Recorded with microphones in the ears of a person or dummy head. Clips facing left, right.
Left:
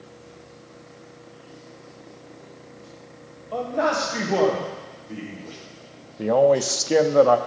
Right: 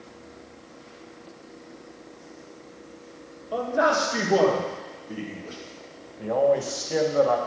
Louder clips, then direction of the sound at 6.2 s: Left 4 dB; 70° left (ahead or behind).